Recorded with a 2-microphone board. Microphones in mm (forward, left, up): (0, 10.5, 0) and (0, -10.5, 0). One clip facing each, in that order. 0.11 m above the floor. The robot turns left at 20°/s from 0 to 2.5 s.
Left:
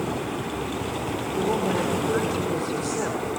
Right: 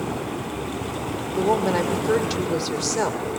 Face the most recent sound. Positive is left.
turn(degrees=-70)  # may be behind; listen again after turning